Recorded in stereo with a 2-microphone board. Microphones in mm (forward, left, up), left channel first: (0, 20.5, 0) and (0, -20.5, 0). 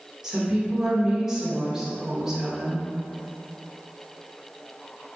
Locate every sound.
0.2 s a woman speaking: 10° right (ahead or behind), 0.8 m